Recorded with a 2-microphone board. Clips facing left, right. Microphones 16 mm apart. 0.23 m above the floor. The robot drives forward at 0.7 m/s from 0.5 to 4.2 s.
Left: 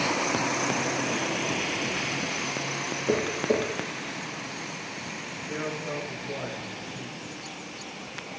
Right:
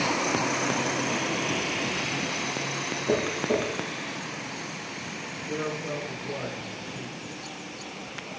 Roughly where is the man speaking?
Right.